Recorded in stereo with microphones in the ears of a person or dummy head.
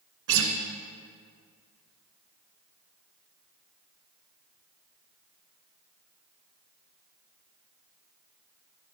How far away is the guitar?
About 2.0 m.